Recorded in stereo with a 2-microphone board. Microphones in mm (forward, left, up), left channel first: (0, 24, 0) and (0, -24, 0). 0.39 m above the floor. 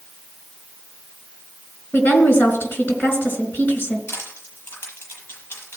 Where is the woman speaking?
60° left (ahead or behind), 4 m.